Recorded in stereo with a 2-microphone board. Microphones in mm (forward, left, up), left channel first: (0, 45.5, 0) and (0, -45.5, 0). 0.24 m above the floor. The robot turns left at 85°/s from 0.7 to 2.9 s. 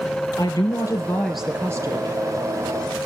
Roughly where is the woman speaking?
Ahead left.